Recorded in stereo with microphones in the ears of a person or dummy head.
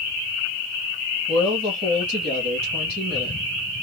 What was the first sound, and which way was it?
A woman speaking, 30° right (ahead or behind).